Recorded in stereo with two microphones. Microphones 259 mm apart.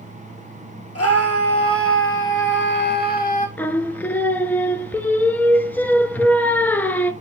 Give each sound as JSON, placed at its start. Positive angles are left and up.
{"t": 0.9, "sound": "a scream", "side_deg": 65, "distance_m": 2.5}
{"t": 3.6, "sound": "singing", "side_deg": 5, "distance_m": 0.5}